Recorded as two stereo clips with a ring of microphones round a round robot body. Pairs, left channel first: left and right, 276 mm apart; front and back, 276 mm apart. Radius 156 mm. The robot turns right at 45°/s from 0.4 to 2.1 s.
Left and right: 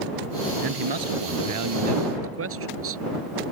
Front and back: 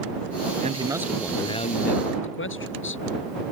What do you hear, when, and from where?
0.6 s a man speaking: 115° right; by 3.0 s 50° right